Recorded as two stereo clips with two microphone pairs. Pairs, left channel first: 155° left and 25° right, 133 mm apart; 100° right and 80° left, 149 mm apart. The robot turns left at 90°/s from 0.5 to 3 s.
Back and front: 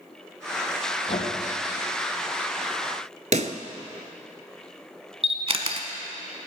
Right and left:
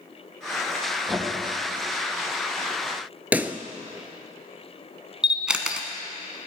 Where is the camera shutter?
5° right, 1.1 m.